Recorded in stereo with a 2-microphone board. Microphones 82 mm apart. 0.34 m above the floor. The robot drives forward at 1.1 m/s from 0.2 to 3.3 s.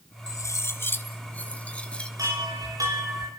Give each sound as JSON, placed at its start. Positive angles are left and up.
{"t": 0.3, "sound": "cutlery clinking", "side_deg": 45, "distance_m": 0.7}
{"t": 2.2, "sound": "a chime", "side_deg": -50, "distance_m": 8.0}